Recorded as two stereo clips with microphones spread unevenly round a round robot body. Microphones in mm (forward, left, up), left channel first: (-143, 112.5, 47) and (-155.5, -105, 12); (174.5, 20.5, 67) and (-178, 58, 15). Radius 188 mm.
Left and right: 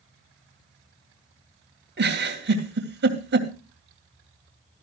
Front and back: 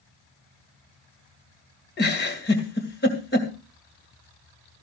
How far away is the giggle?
About 2.5 m.